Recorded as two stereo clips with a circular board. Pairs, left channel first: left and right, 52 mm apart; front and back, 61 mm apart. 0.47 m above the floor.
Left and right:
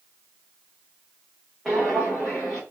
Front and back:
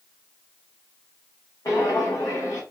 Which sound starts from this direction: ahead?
Footsteps, at 1.6 s.